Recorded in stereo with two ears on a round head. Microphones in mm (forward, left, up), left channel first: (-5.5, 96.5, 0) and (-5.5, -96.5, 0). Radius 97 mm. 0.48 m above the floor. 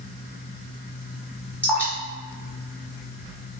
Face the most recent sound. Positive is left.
turn(degrees=5)  # may be behind; listen again after turning